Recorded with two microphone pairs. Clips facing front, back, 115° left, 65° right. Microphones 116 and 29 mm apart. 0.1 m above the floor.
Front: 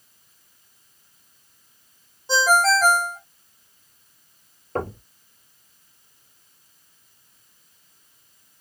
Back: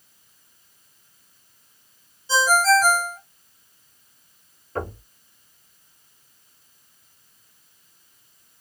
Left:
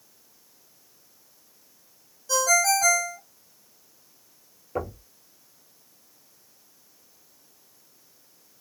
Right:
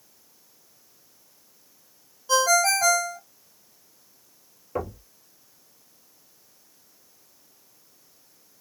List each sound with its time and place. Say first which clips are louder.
2.3 s a ringtone: even, right 1 dB; 10° right, 1.8 m
4.8 s knocking: front 2 dB, even; 15° left, 2.5 m